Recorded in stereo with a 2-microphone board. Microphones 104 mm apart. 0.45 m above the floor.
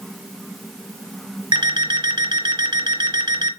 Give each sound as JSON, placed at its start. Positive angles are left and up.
{"t": 1.5, "sound": "an alarm clock", "side_deg": -50, "distance_m": 0.7}